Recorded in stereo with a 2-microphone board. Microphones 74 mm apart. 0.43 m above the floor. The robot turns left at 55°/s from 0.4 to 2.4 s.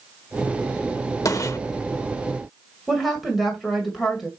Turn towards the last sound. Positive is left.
turn(degrees=0)  # may be behind; listen again after turning